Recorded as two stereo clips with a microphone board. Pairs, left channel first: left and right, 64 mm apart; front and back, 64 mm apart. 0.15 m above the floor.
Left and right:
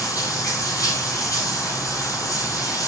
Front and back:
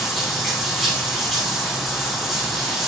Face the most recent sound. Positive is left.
turn(degrees=90)